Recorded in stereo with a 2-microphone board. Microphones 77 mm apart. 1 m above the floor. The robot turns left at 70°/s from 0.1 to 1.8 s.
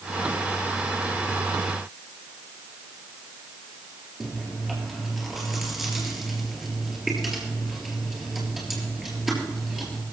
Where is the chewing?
5° right (ahead or behind), 4 m.